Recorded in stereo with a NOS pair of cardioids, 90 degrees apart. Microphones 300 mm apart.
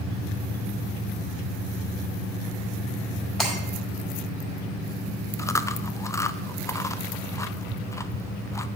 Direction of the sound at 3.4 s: Straight ahead.